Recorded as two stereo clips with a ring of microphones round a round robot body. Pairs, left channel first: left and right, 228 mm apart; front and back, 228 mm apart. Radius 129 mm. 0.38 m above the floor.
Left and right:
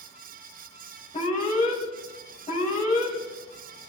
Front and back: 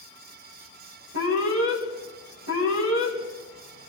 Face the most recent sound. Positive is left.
turn(degrees=145)